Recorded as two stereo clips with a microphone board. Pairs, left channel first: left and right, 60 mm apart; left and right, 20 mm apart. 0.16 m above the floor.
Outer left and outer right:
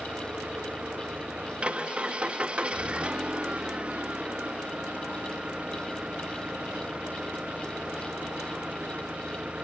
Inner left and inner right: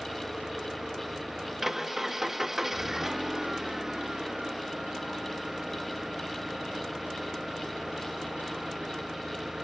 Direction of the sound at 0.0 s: 20° right (ahead or behind).